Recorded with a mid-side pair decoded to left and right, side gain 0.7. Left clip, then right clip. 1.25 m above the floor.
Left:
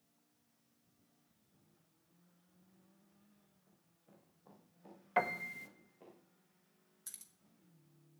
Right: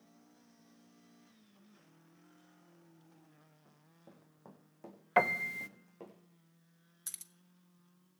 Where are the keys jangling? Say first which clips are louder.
Right 6 dB; 30° right, 1.1 m.